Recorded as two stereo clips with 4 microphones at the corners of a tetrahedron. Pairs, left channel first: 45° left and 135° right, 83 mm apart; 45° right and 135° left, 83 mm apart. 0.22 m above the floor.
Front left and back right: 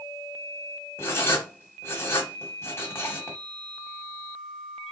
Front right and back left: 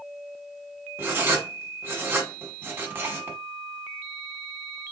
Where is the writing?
85° left, 1.1 m.